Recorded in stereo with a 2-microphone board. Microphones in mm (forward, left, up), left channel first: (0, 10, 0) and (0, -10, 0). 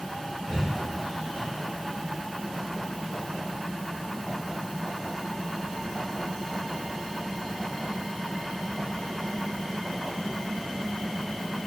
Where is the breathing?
85° right, 5 m.